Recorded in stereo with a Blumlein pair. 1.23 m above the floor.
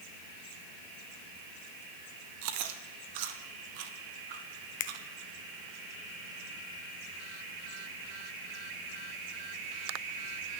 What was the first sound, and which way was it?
Chewing, 45° right.